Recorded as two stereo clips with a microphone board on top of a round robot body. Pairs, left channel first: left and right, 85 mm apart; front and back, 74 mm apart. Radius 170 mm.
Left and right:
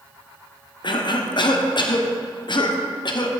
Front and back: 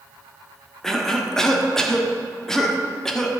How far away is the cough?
About 1.6 m.